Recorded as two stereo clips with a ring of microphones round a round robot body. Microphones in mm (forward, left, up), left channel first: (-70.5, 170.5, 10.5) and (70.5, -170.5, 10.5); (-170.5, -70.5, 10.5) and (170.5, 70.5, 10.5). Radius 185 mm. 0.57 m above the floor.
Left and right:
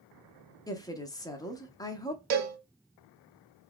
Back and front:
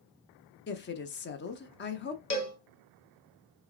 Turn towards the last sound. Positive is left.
turn(degrees=-95)